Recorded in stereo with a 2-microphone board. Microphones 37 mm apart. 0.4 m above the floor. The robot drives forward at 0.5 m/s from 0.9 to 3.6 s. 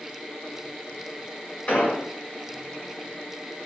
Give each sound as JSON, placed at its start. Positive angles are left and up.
{"t": 1.7, "sound": "an explosion", "side_deg": 45, "distance_m": 1.6}